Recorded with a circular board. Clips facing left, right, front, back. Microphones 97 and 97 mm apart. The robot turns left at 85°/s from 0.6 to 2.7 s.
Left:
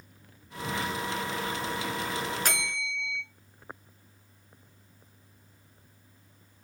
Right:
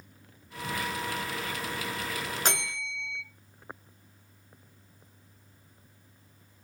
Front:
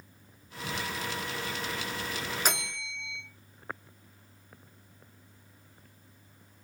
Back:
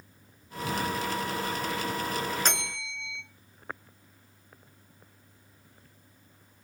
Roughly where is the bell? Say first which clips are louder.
Even, even; ahead right.